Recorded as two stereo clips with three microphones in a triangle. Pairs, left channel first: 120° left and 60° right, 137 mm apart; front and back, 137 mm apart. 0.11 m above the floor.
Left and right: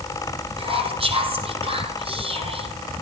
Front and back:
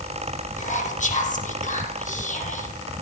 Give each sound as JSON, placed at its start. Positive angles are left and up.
{"t": 0.6, "sound": "whispering", "azimuth_deg": -15, "distance_m": 5.0}